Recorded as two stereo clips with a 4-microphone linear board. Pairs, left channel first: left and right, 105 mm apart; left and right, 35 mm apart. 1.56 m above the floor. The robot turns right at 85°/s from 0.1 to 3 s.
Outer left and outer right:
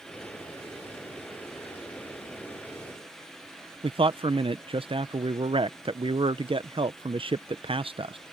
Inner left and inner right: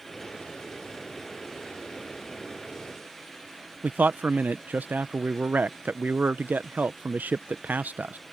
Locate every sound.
3.8 s a man speaking: 60° right (ahead or behind)